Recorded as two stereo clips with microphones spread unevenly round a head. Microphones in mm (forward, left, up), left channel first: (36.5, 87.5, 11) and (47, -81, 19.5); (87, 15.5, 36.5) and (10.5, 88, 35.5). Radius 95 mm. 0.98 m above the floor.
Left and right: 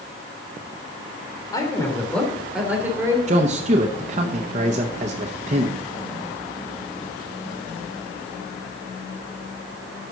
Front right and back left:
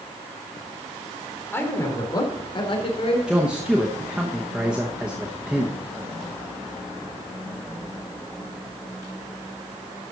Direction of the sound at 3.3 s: 140° right.